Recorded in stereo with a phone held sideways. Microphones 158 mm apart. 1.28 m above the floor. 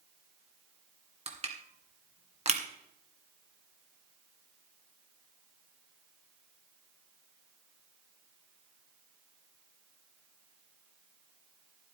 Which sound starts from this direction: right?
Crushing, at 1.3 s.